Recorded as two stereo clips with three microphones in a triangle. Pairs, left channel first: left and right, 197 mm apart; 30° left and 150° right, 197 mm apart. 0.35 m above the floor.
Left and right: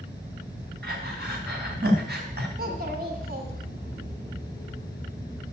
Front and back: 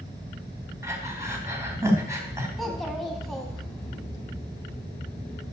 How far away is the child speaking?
About 1.9 m.